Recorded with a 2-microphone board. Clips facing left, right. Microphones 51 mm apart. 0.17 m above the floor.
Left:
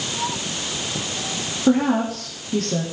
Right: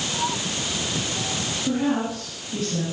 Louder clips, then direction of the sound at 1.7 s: Left 6 dB; 65° left (ahead or behind).